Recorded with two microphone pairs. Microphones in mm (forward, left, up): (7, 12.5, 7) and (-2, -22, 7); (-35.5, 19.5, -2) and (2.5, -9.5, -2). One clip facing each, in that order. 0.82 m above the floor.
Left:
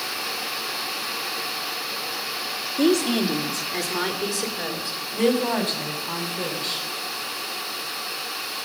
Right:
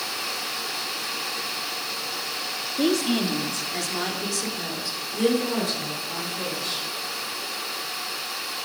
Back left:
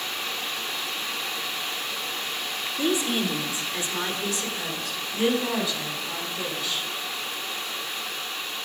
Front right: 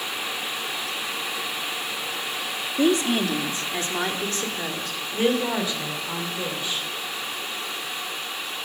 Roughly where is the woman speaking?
Ahead.